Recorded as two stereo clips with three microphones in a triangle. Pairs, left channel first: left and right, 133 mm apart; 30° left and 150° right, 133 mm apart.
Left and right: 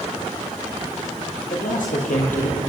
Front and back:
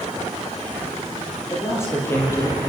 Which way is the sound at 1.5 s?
100° left.